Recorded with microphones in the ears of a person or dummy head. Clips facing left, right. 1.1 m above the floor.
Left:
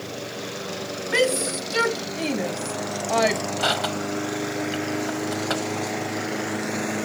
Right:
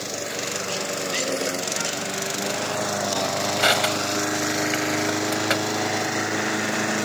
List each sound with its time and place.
1.1 s a shout: 80° left; by 3.4 s 85° left
3.6 s crushing: 25° right (ahead or behind)